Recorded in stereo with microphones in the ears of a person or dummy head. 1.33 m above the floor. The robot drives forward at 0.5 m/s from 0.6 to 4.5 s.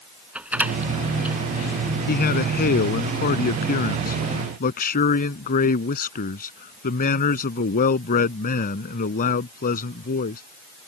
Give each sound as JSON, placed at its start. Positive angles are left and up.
{"t": 0.3, "sound": "a door slam", "side_deg": -10}
{"t": 2.1, "sound": "a man speaking", "side_deg": 50}